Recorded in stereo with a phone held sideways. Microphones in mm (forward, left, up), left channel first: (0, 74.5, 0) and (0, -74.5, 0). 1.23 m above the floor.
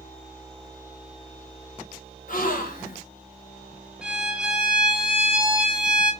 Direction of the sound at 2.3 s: 65° left (ahead or behind).